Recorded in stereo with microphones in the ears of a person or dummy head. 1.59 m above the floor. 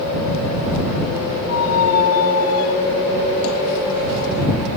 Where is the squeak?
80° left.